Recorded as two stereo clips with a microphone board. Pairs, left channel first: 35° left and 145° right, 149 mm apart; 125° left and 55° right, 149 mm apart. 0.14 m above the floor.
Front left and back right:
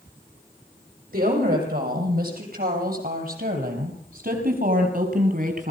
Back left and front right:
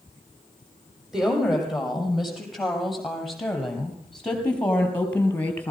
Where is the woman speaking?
145° right, 6.5 m; by 5.7 s 160° right, 3 m.